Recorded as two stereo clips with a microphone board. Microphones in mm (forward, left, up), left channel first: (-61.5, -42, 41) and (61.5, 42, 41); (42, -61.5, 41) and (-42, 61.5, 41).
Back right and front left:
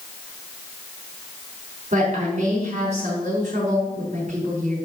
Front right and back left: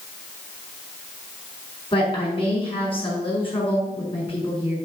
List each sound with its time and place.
1.9 s a woman speaking: straight ahead, 4.5 m